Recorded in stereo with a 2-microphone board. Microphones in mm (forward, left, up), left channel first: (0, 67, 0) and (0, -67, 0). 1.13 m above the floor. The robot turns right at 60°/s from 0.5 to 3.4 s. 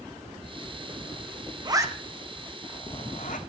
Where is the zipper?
30° right (ahead or behind), 0.9 m; by 3.4 s 70° left (ahead or behind), 0.9 m.